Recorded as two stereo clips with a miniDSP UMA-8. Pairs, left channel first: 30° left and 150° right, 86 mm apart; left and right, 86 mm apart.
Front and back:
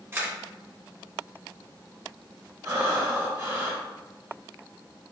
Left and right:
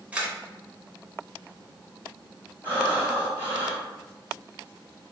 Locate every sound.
0.1 s a camera shutter: 145° right, 0.8 m
2.6 s breathing: 150° right, 1.9 m